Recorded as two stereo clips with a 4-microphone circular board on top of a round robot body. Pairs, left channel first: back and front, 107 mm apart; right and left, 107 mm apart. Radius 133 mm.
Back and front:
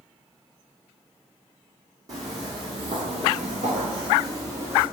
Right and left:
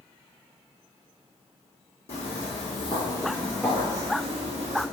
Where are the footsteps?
60° right, 1.5 m; by 4.8 s 70° left, 1.2 m.